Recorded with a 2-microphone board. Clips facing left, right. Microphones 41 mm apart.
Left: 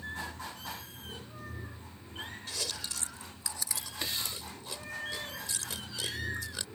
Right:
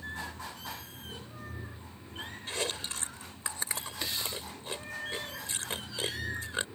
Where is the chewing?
35° right (ahead or behind).